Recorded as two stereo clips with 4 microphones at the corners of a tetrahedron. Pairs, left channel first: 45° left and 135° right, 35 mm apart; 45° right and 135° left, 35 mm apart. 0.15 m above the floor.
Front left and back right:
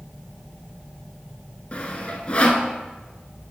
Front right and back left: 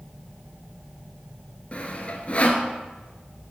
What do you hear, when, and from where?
1.7 s sawing: straight ahead, 0.9 m